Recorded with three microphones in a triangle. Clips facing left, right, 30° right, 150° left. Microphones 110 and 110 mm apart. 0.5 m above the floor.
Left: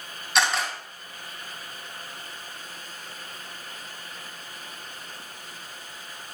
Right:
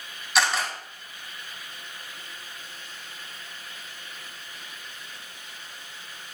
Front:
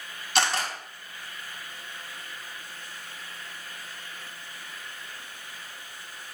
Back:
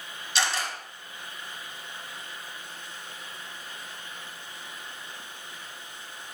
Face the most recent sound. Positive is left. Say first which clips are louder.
# even, front 3 dB
turn(degrees=0)